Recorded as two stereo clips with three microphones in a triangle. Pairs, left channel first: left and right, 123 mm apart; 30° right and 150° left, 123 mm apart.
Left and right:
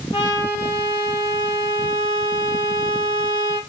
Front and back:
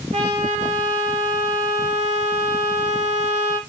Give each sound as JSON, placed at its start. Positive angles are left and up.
{"t": 0.1, "sound": "a trumpet", "azimuth_deg": 130, "distance_m": 4.5}